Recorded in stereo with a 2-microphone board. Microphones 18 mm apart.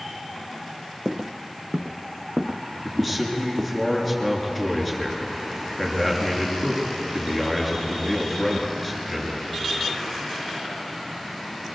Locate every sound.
1.1 s footsteps: 65° right (ahead or behind), 0.9 m; by 3.8 s 35° right (ahead or behind), 2.0 m
2.8 s a man speaking: 10° left (ahead or behind), 5.5 m